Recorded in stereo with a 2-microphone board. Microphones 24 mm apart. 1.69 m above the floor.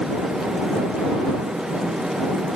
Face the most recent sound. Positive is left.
No sound to turn to.